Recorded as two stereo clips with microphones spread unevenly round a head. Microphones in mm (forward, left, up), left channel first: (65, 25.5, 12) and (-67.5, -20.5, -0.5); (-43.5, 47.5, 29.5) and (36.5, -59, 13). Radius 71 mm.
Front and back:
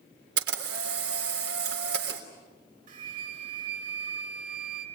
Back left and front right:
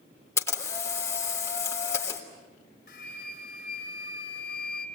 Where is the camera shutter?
160° right, 3.5 m.